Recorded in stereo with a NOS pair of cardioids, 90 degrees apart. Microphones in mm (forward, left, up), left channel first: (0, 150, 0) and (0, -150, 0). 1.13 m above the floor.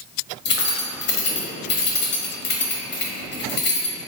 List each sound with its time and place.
0.5 s keys jangling: 35° left, 1.0 m